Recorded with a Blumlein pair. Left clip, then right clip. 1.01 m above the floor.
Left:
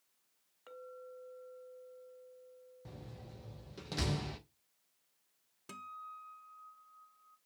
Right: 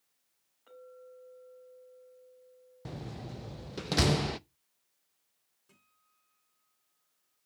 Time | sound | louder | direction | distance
0.7 | a clink | left 2 dB | 70° left | 3 m
2.9 | a door slam | right 11 dB | 30° right | 0.6 m
5.7 | a guitar | left 23 dB | 40° left | 0.6 m